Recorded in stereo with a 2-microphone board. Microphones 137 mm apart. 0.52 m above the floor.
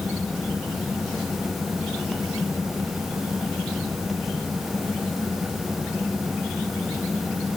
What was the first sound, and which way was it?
Only background noise.